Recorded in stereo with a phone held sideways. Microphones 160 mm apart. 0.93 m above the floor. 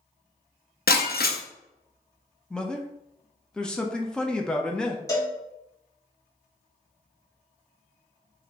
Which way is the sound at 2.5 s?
5° left (ahead or behind).